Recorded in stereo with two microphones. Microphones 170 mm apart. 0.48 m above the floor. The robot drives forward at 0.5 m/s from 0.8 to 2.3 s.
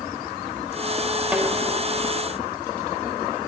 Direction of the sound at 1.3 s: 10° right (ahead or behind).